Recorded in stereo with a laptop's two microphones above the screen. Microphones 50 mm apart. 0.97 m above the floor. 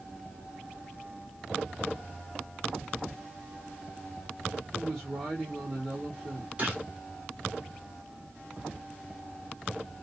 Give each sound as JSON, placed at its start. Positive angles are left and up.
{"t": 4.7, "sound": "a woman speaking", "side_deg": -10, "distance_m": 2.5}
{"t": 6.6, "sound": "a gunshot", "side_deg": -25, "distance_m": 3.0}